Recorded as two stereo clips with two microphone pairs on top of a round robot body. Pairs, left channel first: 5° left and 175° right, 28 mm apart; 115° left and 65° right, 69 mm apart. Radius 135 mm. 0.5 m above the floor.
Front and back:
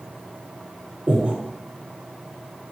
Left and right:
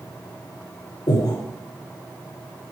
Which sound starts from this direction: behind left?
Breathing, at 1.1 s.